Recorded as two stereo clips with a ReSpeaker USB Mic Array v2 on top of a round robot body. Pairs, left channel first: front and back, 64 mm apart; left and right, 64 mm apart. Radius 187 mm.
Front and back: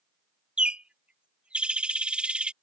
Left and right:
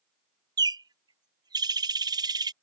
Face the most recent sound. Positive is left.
turn(degrees=-105)